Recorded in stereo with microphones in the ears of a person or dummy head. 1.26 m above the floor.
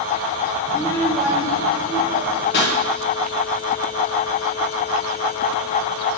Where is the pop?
55° left (ahead or behind), 1.5 m.